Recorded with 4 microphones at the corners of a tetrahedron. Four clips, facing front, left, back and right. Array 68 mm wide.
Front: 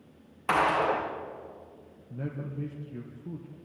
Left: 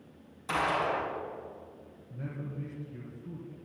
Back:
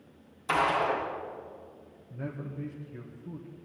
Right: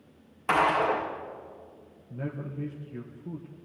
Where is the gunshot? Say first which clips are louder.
Right 6 dB, front 2 dB; 45° right, 5.5 m.